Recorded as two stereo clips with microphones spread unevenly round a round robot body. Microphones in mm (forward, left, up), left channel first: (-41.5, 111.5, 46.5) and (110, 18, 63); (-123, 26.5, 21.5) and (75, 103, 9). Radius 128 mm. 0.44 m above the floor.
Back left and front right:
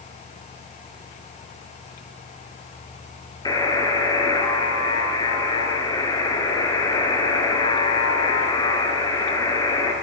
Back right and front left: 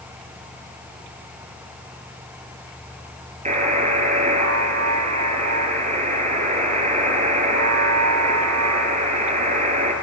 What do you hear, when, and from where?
3.5 s a buzzer: 80° left, 2 m